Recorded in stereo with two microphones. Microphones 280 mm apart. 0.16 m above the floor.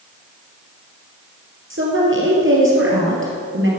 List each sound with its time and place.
1.7 s a woman speaking: 45° right (ahead or behind), 3 m